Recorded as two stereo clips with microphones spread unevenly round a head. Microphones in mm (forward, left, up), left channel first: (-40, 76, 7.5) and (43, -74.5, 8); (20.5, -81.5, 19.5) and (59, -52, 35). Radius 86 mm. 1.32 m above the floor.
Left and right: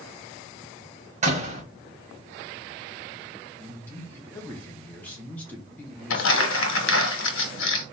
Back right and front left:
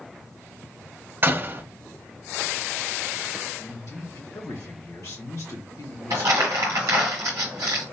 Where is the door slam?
10° right, 0.9 m.